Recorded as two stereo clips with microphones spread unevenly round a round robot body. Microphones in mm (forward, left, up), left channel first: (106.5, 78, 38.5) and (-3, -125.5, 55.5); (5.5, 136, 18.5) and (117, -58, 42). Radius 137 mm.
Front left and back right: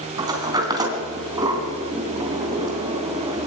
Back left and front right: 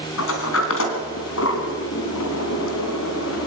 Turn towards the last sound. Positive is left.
turn(degrees=165)